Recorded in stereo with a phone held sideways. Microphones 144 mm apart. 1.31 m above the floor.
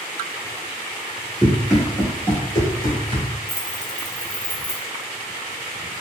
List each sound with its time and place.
1.4 s running footsteps: 10° right (ahead or behind), 1.3 m; by 3.3 s 30° left (ahead or behind), 1.5 m
3.5 s keys jangling: 45° left (ahead or behind), 0.6 m